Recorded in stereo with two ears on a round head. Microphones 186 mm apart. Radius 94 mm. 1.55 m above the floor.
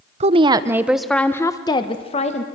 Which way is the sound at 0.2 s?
30° right (ahead or behind).